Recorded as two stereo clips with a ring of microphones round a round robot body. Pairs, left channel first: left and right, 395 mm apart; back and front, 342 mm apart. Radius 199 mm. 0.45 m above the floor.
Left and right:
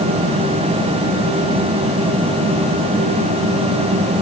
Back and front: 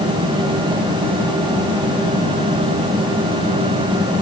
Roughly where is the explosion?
No explosion in this recording.